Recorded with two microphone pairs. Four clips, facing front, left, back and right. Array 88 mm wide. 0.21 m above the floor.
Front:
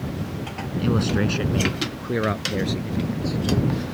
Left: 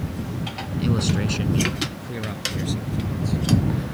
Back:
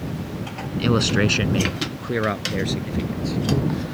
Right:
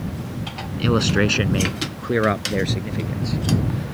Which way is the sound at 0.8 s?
130° right.